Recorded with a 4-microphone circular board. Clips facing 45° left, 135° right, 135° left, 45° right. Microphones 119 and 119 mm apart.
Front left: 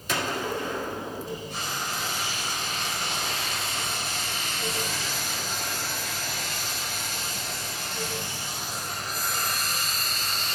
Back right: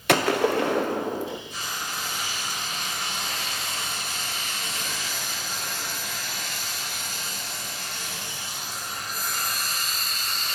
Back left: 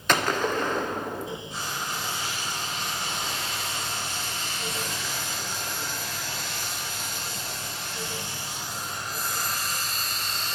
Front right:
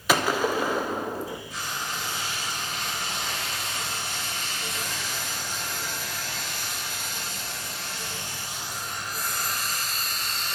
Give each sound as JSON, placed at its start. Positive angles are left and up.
{"t": 0.1, "sound": "a gunshot", "azimuth_deg": -130, "distance_m": 0.6}
{"t": 1.5, "sound": "frying", "azimuth_deg": 70, "distance_m": 3.0}